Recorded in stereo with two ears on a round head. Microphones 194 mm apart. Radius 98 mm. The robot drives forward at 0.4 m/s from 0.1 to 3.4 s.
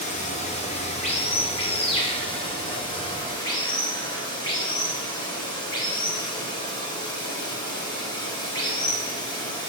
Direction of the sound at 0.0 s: 35° left (ahead or behind).